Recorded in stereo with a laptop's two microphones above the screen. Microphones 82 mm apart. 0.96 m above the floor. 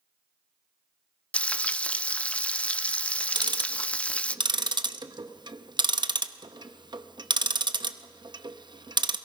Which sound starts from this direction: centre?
Frying, at 1.3 s.